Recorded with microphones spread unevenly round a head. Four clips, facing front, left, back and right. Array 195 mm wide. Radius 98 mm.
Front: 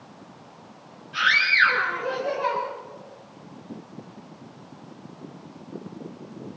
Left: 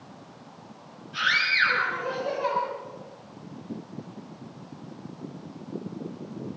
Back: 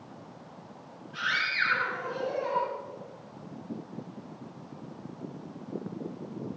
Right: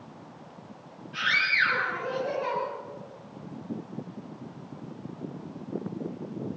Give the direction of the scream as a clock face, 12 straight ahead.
12 o'clock.